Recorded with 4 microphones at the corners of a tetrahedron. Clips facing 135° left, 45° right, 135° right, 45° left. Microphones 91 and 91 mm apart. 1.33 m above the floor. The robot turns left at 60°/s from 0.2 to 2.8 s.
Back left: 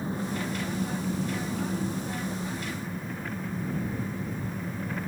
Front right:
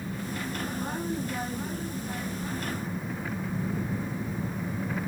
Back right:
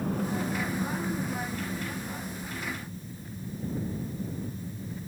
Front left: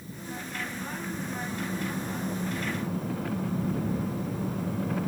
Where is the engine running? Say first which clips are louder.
Back left 3 dB, back right 9 dB; 160° right; by 5.1 s 45° left.